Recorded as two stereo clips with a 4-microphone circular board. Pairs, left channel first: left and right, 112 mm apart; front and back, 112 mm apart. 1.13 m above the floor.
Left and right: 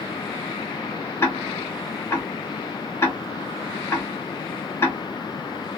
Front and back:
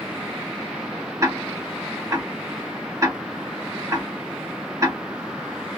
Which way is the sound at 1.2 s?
140° left.